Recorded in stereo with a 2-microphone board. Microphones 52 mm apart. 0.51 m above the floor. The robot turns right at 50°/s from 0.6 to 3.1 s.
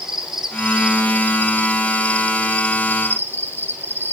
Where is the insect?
170° right, 1.7 m; by 4.1 s 45° right, 1.7 m.